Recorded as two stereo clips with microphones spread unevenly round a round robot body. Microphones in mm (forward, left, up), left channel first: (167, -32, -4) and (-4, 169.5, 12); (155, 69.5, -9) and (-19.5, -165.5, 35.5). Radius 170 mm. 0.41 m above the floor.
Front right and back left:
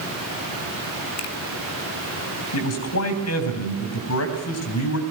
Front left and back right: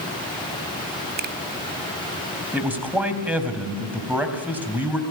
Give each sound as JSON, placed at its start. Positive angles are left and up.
{"t": 1.2, "sound": "a finger snap", "azimuth_deg": -65, "distance_m": 1.8}
{"t": 2.5, "sound": "a man speaking", "azimuth_deg": -40, "distance_m": 3.5}